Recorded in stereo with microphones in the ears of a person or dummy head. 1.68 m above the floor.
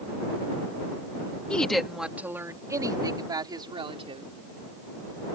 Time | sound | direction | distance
1.5 | a woman speaking | 10° left (ahead or behind) | ?